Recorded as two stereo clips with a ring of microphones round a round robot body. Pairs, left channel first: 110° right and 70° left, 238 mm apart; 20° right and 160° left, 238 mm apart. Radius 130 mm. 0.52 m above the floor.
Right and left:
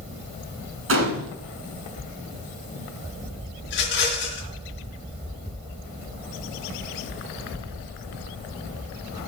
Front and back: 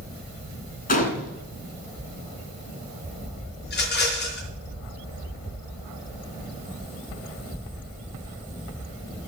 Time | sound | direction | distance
0.9 | a gunshot | 35° left | 1.8 m
3.6 | a rattle | 70° right | 3.5 m